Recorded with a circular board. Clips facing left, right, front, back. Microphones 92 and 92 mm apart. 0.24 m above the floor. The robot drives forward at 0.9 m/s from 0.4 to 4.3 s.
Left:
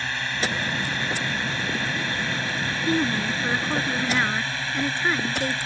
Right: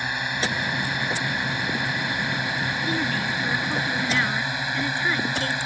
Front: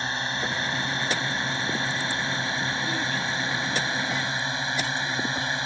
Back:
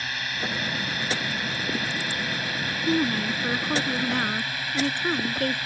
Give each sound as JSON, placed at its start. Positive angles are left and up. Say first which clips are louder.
{"t": 0.0, "sound": "a drone", "louder": "right 1 dB, front 3 dB", "azimuth_deg": -30}
{"t": 2.9, "sound": "a woman speaking", "louder": "left 6 dB, back 4 dB", "azimuth_deg": 145}